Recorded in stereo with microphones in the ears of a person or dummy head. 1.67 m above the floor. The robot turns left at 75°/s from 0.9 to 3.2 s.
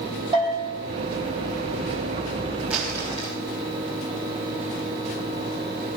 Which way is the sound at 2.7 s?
170° right.